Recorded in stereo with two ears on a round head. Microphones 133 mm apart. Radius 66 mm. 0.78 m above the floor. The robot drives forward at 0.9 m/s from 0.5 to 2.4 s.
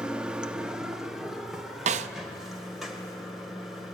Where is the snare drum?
50° right (ahead or behind), 0.5 m; by 2.1 s 45° right (ahead or behind), 0.5 m.